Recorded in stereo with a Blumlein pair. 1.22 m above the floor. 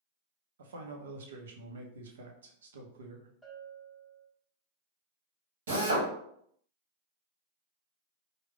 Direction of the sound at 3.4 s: Straight ahead.